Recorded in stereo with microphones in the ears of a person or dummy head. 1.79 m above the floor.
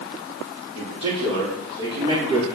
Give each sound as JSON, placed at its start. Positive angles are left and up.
{"t": 0.8, "sound": "a man speaking", "side_deg": -35, "distance_m": 3.5}